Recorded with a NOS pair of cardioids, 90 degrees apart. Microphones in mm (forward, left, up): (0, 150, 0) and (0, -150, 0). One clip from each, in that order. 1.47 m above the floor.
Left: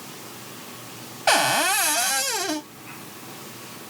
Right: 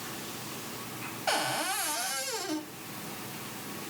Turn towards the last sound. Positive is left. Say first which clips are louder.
# left 11 dB
turn(degrees=45)